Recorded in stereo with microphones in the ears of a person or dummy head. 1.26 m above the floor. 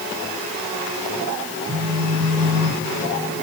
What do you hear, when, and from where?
1.7 s a phone buzzing: 35° right (ahead or behind), 8.5 m